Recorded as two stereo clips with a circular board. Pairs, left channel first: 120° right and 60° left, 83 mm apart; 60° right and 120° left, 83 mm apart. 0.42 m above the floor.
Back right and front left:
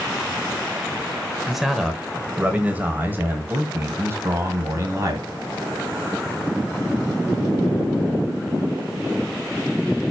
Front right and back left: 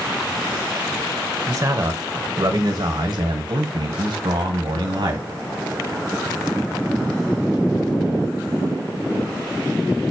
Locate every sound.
1.5 s a man speaking: 150° left, 1.4 m; by 5.3 s 110° left, 3 m